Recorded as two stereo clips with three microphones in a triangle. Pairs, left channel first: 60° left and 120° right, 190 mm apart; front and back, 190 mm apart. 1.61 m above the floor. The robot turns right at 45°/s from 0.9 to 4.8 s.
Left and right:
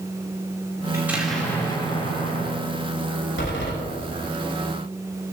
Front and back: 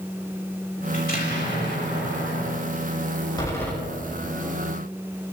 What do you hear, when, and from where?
0.9 s an explosion: 45° right, 4.5 m; by 2.6 s 25° left, 4.5 m
3.4 s a door slam: 70° left, 5.5 m; by 3.7 s 85° left, 5.5 m